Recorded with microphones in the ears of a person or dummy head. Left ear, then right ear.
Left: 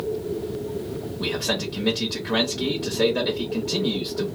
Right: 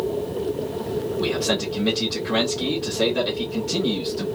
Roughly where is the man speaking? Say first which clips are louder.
Right 1 dB; centre.